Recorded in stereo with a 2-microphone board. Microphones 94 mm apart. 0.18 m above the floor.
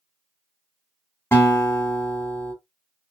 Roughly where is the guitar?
Left.